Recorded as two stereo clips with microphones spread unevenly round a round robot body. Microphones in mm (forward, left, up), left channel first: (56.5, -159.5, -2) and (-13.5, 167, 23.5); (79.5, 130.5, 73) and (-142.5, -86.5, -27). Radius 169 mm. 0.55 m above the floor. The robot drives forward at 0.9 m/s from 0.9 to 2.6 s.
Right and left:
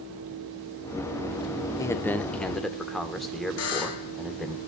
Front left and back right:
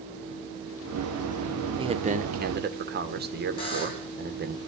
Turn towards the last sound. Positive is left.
turn(degrees=-35)